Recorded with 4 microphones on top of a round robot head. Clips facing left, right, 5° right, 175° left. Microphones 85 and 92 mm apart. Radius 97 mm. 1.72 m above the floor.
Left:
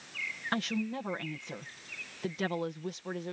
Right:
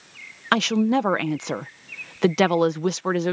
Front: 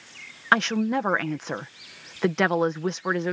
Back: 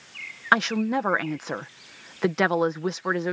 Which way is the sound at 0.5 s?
95° right.